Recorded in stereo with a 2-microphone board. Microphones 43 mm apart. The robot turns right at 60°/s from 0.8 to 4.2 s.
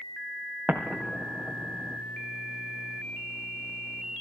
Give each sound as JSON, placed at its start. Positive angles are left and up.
{"t": 0.7, "sound": "an explosion", "side_deg": -30, "distance_m": 4.5}